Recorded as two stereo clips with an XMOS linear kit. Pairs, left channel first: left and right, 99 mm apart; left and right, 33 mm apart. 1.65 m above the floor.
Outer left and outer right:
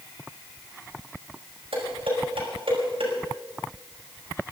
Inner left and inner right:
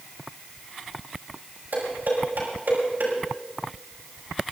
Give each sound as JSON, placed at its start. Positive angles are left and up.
{"t": 1.7, "sound": "dishes clattering", "side_deg": -80, "distance_m": 6.0}